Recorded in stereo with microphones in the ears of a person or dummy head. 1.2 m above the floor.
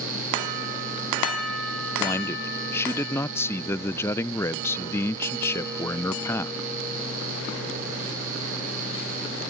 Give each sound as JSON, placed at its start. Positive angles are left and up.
{"t": 2.0, "sound": "a man speaking", "side_deg": 15}